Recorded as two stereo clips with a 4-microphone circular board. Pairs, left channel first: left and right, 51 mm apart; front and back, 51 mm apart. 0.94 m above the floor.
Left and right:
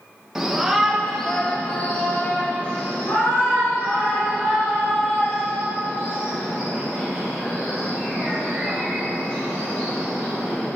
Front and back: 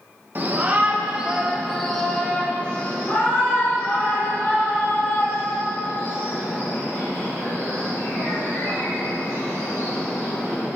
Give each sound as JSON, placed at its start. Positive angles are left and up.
{"t": 0.3, "sound": "a shout", "azimuth_deg": -165, "distance_m": 0.9}